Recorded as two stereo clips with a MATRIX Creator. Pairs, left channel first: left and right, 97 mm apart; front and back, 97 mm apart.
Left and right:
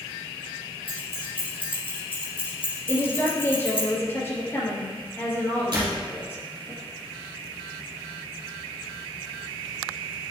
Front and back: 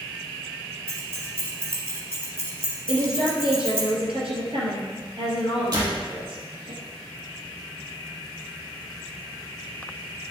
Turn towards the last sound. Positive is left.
turn(degrees=-135)